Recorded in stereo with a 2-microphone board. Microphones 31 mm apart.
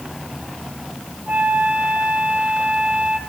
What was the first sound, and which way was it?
A flute, 50° right (ahead or behind).